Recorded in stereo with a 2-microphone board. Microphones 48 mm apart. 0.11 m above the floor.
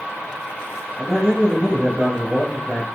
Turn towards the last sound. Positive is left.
turn(degrees=-20)  # may be behind; listen again after turning